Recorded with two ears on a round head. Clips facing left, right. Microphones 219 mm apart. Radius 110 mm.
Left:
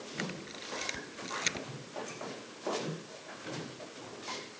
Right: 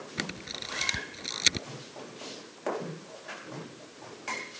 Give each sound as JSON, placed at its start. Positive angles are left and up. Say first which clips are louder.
{"t": 0.2, "sound": "a camera shutter", "louder": "right 1 dB", "side_deg": -60}